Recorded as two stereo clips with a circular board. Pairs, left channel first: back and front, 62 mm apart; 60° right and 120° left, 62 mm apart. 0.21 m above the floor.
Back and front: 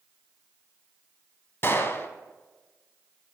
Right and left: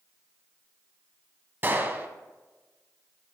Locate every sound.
1.6 s a gunshot: 160° left, 0.6 m